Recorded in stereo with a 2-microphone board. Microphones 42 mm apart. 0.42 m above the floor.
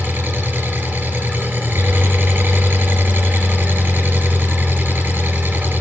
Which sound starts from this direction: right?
An engine running, at 0.0 s.